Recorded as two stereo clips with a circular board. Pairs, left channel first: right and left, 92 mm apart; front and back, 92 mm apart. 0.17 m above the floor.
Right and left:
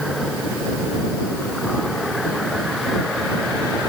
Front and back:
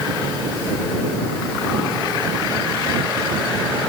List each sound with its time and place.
Only background noise.